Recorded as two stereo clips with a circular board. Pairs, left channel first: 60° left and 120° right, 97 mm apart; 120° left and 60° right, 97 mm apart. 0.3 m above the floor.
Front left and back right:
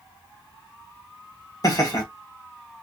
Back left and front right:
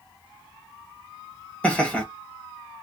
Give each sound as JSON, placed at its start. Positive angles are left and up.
{"t": 1.6, "sound": "laughter", "azimuth_deg": 50, "distance_m": 1.1}